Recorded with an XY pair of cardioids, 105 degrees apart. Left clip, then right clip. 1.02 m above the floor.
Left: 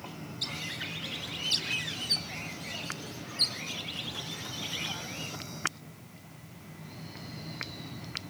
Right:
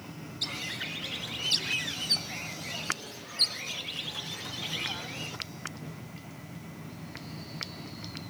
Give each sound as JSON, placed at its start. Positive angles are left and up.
{"t": 0.4, "sound": "a bird", "azimuth_deg": -10, "distance_m": 1.5}